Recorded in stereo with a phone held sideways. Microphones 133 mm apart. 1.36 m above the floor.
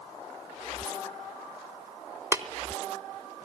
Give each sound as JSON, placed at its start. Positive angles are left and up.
{"t": 0.8, "sound": "a rattle", "side_deg": 30, "distance_m": 2.5}
{"t": 2.3, "sound": "tapping", "side_deg": -20, "distance_m": 1.3}